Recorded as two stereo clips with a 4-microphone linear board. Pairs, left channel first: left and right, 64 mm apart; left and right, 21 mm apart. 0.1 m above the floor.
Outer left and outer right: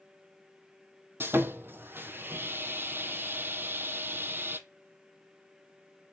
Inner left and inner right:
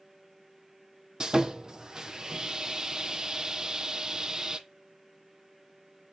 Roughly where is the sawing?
Right.